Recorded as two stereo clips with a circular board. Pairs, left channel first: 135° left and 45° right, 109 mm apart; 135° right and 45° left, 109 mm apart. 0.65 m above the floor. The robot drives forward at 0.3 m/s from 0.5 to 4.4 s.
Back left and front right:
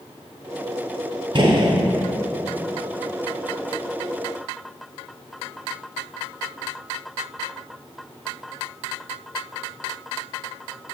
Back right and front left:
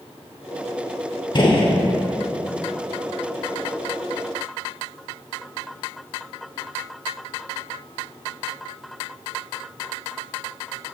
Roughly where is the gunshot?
Right.